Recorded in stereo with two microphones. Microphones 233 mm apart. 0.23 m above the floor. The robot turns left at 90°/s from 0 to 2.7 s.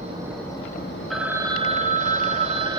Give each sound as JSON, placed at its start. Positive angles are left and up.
{"t": 0.0, "sound": "an insect", "azimuth_deg": -145, "distance_m": 1.4}
{"t": 1.1, "sound": "a phone ringing", "azimuth_deg": 0, "distance_m": 0.6}